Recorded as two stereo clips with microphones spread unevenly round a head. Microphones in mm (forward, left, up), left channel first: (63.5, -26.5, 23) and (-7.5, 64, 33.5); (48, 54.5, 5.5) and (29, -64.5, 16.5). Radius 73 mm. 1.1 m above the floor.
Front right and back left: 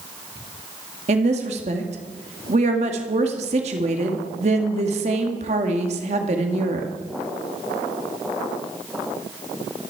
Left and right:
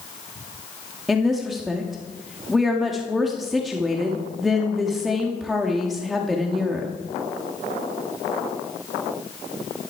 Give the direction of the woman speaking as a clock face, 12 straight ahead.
6 o'clock.